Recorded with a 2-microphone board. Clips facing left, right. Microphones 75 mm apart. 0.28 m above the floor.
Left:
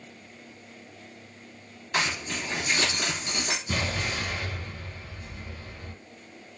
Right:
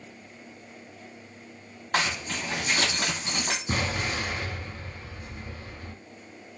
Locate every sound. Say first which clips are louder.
1.9 s a zipper: right 1 dB; 55° right (ahead or behind), 1.0 m
3.7 s an explosion: right 2 dB; 40° right (ahead or behind), 1.3 m